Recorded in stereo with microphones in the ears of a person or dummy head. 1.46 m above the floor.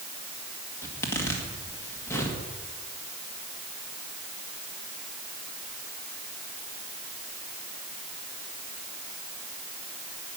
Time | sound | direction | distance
0.8 | a zipper | 15° left (ahead or behind) | 2 m